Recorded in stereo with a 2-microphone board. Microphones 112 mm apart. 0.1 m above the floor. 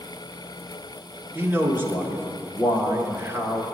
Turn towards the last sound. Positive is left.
turn(degrees=-20)  # may be behind; listen again after turning